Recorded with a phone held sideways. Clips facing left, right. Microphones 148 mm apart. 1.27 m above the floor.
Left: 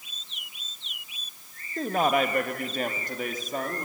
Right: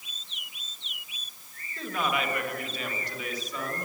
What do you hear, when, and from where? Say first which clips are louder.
1.8 s a man speaking: left 6 dB; 45° left (ahead or behind), 1.2 m; by 3.9 s 50° left (ahead or behind), 2.5 m